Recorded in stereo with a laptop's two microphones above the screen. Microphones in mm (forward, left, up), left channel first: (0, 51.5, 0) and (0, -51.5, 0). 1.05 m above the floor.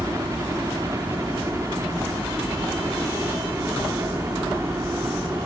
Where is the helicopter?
30° right (ahead or behind); by 5.5 s 25° right (ahead or behind).